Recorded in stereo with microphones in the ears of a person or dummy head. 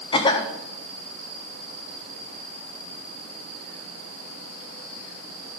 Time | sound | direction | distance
0.1 | a cough | 30° left (ahead or behind) | 0.9 m